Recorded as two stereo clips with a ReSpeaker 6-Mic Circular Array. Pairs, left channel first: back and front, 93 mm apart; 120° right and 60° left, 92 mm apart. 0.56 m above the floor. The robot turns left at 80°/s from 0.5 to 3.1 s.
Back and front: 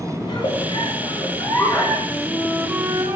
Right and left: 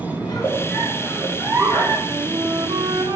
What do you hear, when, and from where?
0.2 s a giggle: 165° right, 6 m; by 2.0 s 80° left, 6 m
2.1 s a flute: 110° left, 2.5 m; by 3.2 s 25° left, 2.5 m